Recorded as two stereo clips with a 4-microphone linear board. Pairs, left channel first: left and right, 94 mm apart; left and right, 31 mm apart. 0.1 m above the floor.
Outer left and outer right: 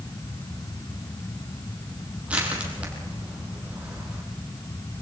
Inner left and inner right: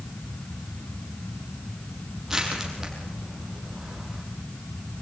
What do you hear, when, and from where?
2.3 s crushing: 15° right (ahead or behind), 3.5 m